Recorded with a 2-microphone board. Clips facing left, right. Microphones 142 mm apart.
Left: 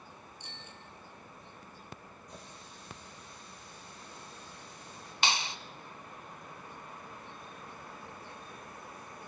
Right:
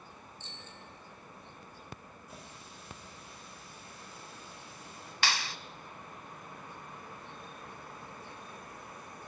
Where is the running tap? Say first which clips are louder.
Even; 5° right (ahead or behind), 9.5 m.